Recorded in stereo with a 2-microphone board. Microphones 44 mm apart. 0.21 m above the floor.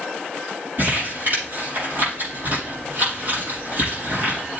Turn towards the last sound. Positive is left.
turn(degrees=-45)  # may be behind; listen again after turning